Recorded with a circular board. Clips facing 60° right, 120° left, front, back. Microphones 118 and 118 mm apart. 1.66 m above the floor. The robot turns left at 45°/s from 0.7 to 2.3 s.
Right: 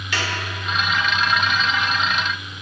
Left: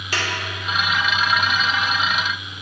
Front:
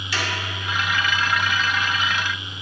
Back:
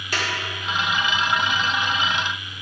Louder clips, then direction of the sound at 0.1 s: Even, even; 160° left.